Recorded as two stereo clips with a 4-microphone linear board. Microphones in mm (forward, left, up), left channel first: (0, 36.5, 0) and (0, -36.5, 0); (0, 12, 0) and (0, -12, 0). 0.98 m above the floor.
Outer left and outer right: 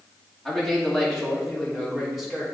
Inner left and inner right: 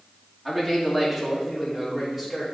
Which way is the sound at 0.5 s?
Centre (ahead or behind).